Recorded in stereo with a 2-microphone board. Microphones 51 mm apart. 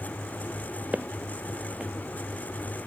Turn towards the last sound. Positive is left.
turn(degrees=-25)  # may be behind; listen again after turning